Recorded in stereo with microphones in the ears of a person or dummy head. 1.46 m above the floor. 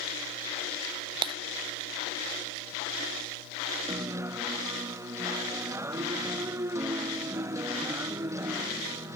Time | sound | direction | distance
1.2 | breaking glass | 30° right (ahead or behind) | ?
3.9 | a guitar | 15° right (ahead or behind) | ?